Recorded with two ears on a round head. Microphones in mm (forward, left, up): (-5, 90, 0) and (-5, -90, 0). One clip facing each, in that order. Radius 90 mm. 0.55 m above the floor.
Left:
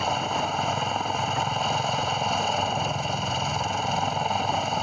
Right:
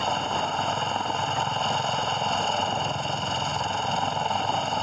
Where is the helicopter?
Centre (ahead or behind).